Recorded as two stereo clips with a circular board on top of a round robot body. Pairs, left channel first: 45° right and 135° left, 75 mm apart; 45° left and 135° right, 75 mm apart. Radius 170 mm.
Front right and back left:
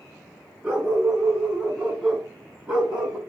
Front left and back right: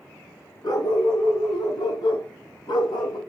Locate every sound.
0.6 s a dog barking: 65° left, 5.5 m; by 3.2 s 55° left, 3.5 m